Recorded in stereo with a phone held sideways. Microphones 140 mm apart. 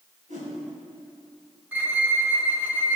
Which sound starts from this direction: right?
A whoosh, at 0.3 s.